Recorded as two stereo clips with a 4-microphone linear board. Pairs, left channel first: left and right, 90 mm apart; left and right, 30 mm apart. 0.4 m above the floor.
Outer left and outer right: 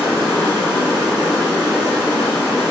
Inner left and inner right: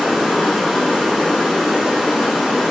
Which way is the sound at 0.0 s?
10° right (ahead or behind).